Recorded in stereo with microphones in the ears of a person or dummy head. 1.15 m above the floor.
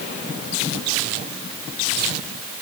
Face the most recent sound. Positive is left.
No sound to turn to.